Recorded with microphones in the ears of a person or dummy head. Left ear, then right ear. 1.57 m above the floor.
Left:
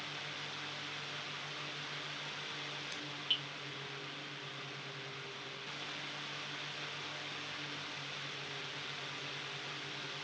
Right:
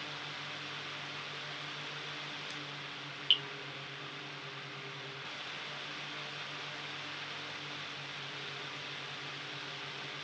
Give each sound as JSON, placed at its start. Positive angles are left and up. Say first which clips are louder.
{"t": 3.3, "sound": "dripping", "louder": "right 6 dB", "side_deg": -35, "distance_m": 0.8}